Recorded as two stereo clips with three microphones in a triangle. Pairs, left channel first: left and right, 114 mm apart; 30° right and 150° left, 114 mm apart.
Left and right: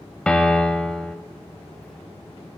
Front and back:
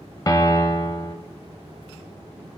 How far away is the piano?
About 0.8 m.